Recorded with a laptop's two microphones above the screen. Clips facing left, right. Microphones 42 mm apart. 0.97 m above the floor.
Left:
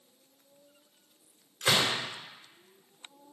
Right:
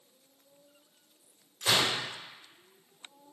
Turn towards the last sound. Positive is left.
turn(degrees=80)